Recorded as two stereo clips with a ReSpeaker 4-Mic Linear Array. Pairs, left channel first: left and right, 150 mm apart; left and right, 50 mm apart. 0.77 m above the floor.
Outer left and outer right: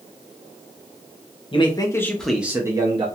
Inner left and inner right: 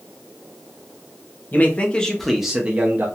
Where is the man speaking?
35° left (ahead or behind), 0.7 m; by 3.1 s 35° right (ahead or behind), 0.7 m.